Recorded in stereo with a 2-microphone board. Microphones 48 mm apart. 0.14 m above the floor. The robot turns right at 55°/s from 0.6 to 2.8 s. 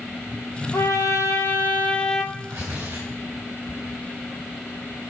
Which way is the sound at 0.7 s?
90° left.